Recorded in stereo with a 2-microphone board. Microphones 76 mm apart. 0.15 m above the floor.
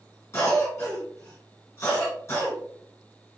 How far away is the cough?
About 1.8 m.